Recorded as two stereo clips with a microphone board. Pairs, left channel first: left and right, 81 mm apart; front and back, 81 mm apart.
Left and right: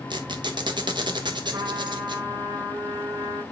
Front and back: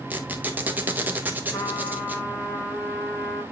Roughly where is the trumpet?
Ahead right.